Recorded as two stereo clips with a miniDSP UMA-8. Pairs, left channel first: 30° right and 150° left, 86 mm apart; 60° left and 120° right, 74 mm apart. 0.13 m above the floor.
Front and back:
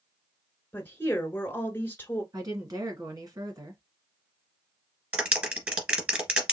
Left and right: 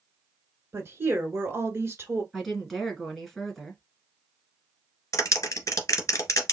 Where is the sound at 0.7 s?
85° right, 1.3 m.